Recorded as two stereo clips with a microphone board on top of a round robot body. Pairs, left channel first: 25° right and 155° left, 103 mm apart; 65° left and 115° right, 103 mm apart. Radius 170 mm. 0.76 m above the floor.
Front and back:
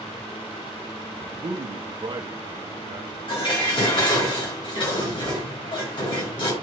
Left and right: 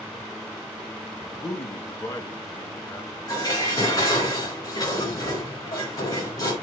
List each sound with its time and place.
1.3 s a man speaking: 120° left, 1.6 m
3.3 s dishes clattering: 15° left, 7 m